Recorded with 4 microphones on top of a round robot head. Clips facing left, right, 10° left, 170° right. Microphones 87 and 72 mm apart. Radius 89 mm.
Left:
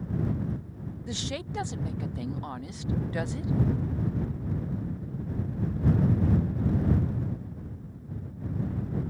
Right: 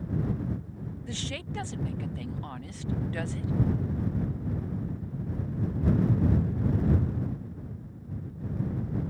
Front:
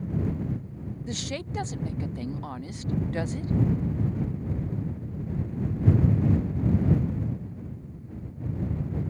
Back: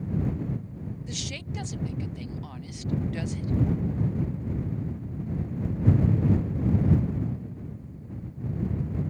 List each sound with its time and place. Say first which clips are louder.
1.1 s a woman speaking: left 3 dB, front 4 dB; 30° left